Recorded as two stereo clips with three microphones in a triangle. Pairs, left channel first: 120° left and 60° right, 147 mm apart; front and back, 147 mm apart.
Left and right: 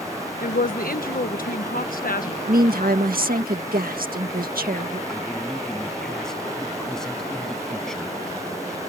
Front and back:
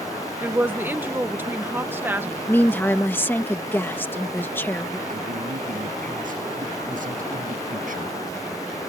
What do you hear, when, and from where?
0.4 s a woman speaking: 105° left
2.5 s a woman speaking: 75° right
5.1 s a man speaking: 155° right